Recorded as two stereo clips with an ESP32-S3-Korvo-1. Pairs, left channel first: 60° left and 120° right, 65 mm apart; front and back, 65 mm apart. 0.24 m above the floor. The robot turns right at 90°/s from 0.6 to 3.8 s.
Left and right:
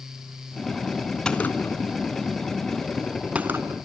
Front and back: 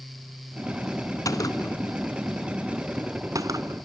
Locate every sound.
1.2 s a gunshot: 15° right, 1.0 m; by 3.8 s 150° right, 1.0 m